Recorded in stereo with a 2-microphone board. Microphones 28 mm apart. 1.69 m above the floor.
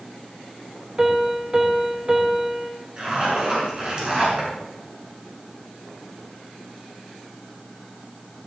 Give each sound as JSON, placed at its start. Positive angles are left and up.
{"t": 1.0, "sound": "a piano", "side_deg": -25, "distance_m": 2.0}
{"t": 3.0, "sound": "a zipper", "side_deg": -30, "distance_m": 6.0}